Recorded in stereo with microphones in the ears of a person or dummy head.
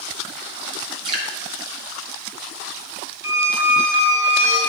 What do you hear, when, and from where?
1.1 s dripping: 30° right (ahead or behind), 0.9 m
3.2 s a squeak: 15° right (ahead or behind), 3 m